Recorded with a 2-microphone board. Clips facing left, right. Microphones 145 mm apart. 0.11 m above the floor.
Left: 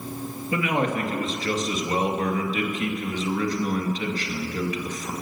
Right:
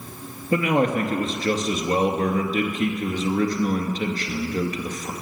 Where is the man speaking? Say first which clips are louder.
Right 4 dB; 45° right (ahead or behind), 2.0 m.